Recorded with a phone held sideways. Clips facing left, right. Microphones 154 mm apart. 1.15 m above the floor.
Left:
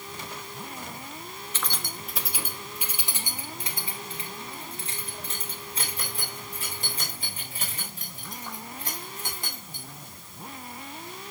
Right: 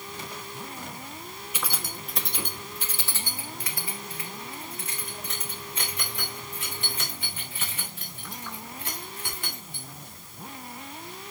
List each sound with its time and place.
1.5 s keys jangling: 10° right (ahead or behind), 1.2 m; by 9.9 s 40° left (ahead or behind), 5.5 m